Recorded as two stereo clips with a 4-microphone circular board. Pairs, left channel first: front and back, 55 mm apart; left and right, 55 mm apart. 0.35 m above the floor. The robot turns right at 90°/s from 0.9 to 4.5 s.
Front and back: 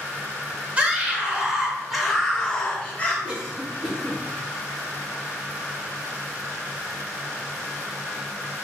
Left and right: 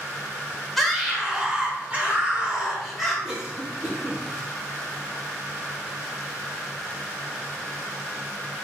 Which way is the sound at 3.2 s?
150° right.